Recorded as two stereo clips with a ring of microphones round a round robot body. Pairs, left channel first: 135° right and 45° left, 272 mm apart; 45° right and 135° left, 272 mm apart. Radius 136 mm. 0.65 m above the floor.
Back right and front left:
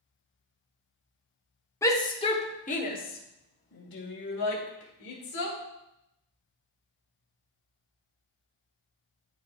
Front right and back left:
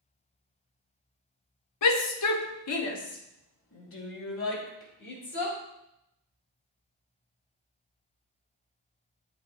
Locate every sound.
1.8 s a shout: 55° right, 1.1 m; by 5.6 s 95° right, 2.5 m